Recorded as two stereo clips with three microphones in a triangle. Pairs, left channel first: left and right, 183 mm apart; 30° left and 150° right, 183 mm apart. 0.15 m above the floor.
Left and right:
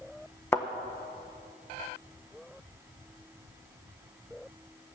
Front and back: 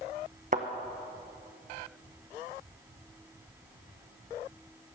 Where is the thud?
165° left, 1.4 m.